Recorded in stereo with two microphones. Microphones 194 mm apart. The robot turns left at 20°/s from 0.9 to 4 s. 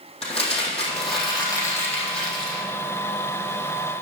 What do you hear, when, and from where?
0.2 s crumpling: 30° left, 3.5 m; by 2.6 s 5° right, 3.5 m